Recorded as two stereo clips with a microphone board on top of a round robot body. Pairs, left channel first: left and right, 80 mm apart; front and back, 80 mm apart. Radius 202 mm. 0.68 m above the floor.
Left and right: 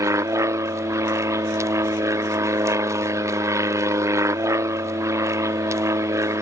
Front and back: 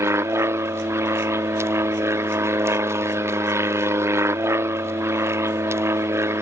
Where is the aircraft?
130° right.